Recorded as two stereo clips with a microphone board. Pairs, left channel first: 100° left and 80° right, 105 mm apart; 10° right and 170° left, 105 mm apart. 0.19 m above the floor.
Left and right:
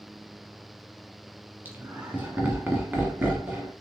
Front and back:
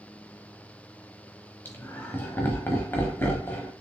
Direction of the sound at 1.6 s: 40° right.